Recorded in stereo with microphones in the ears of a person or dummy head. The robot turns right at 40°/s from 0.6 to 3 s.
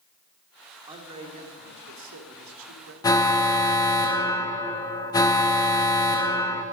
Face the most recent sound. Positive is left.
turn(degrees=20)  # may be behind; listen again after turning